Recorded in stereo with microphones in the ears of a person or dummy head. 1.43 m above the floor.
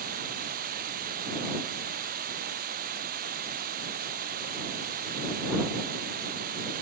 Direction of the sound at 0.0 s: 50° right (ahead or behind).